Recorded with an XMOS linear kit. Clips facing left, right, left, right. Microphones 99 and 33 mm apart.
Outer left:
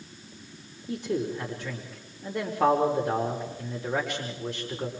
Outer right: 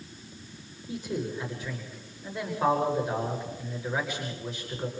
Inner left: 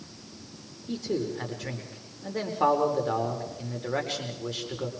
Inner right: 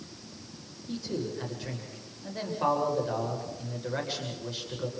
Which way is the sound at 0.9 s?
85° left.